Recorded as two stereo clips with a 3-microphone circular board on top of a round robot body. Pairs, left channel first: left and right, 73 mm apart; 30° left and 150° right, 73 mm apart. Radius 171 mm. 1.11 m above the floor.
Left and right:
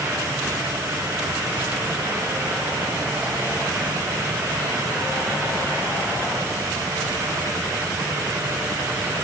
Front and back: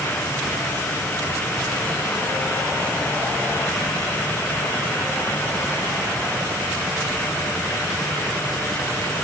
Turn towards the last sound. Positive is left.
No sound to turn to.